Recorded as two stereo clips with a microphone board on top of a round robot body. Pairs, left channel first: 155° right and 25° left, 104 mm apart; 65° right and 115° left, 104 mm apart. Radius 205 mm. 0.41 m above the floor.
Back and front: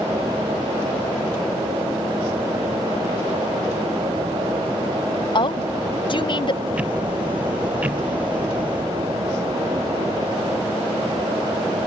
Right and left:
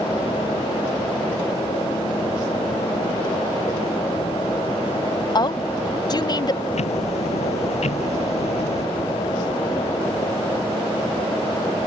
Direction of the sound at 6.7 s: 55° right.